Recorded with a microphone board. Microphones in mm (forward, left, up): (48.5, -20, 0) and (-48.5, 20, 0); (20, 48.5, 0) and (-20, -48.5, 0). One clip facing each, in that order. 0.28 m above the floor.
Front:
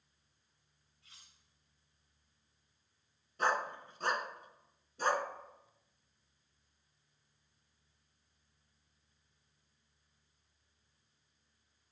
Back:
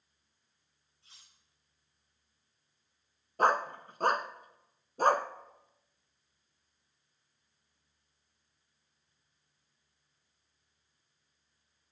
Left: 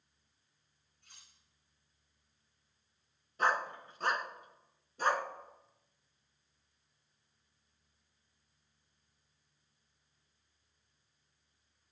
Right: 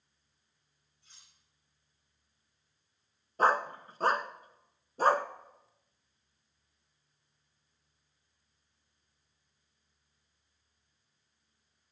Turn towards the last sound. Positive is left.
turn(degrees=-165)